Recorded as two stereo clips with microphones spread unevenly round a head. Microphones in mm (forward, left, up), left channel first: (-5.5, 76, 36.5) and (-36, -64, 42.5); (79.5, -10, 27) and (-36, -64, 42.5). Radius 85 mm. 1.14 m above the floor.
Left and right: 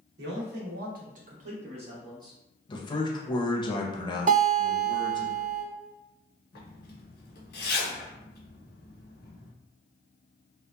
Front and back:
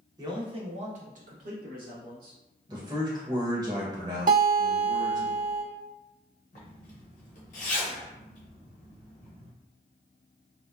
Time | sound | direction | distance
0.2 | a man speaking | 95° right | 0.8 m
2.7 | a man speaking | 140° left | 0.6 m
4.3 | a guitar | 135° right | 1.3 m
6.5 | a zipper | 65° left | 0.8 m